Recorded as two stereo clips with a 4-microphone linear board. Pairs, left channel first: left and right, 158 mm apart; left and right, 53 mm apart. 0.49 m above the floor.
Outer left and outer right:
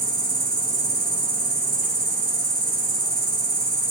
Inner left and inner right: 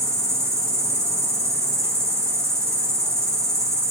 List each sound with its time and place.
0.0 s an insect: 70° right (ahead or behind), 2.0 m